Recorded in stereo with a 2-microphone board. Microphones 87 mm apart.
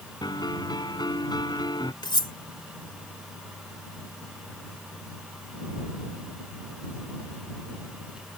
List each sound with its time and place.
0.2 s a piano: 60° left (ahead or behind)
2.0 s cutlery clinking: 70° left (ahead or behind)